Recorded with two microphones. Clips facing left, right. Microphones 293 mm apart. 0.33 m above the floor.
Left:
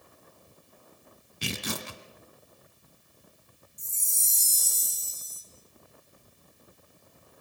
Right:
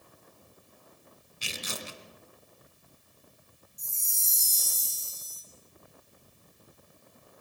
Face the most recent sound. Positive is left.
turn(degrees=60)  # may be behind; listen again after turning